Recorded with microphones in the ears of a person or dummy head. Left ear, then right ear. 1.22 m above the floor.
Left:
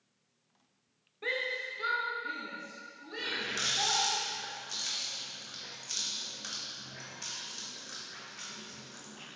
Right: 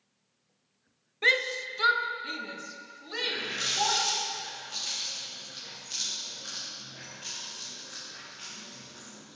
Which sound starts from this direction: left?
A running tap, at 3.2 s.